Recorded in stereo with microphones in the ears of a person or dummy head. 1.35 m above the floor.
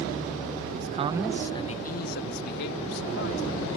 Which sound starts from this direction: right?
A man speaking, at 0.7 s.